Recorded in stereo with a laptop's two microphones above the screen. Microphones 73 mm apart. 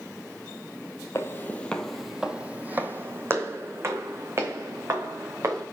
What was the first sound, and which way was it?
Footsteps, 35° left (ahead or behind).